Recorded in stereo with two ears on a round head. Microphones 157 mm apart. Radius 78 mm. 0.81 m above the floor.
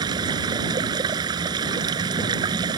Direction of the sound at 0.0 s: 25° right (ahead or behind).